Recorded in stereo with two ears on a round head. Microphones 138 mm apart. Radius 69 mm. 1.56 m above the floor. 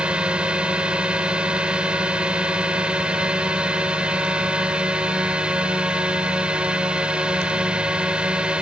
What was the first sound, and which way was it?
A drone, 5° right (ahead or behind).